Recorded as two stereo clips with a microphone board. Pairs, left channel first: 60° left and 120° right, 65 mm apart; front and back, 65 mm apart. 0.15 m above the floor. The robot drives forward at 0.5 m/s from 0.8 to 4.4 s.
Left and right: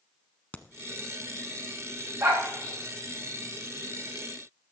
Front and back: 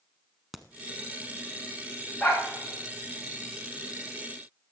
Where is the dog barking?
85° right, 5 m.